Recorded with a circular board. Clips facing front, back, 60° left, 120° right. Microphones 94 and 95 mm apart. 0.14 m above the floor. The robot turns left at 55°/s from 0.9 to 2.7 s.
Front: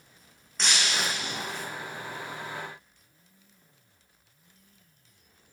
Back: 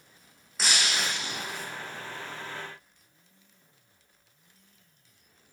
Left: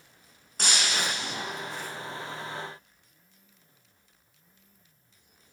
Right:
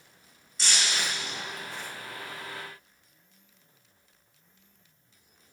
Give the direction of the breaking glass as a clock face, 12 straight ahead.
9 o'clock.